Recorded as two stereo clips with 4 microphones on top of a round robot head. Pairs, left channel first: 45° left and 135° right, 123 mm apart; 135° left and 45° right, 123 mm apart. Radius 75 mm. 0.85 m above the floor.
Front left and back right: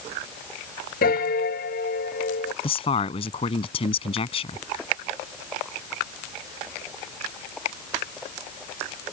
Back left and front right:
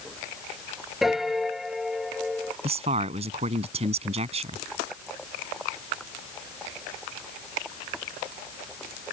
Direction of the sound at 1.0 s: 45° left.